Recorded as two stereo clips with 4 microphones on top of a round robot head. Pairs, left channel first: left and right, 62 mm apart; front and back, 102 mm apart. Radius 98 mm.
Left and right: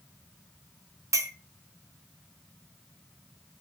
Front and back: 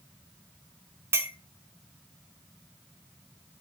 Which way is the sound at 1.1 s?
115° right.